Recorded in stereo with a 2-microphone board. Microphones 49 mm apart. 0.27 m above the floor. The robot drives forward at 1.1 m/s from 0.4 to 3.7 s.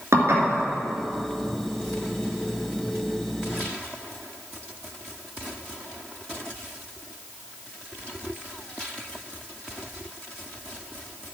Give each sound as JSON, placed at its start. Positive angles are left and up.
{"t": 0.1, "sound": "dishes clattering", "side_deg": -75, "distance_m": 2.5}